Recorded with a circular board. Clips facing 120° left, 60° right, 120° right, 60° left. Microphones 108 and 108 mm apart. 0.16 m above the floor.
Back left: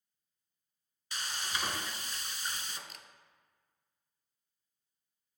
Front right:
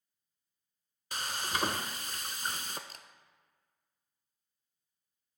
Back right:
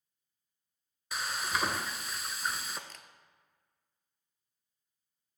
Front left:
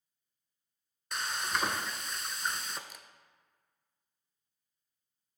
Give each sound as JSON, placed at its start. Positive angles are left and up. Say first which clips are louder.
{"t": 1.1, "sound": "frying", "louder": "front right 4 dB, even", "azimuth_deg": -35, "distance_m": 0.5}
{"t": 2.9, "sound": "a camera shutter", "louder": "front right 1 dB, even", "azimuth_deg": -15, "distance_m": 0.6}